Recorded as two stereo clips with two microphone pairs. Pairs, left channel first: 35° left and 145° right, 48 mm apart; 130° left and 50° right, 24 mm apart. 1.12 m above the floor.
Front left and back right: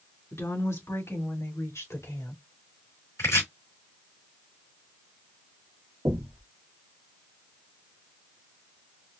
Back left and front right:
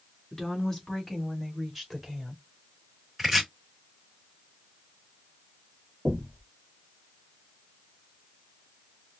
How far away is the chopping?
About 4 m.